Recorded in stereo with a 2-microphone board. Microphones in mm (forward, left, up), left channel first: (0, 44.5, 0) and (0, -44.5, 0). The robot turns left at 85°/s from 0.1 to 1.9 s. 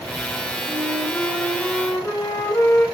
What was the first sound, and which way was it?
A flute, 140° right.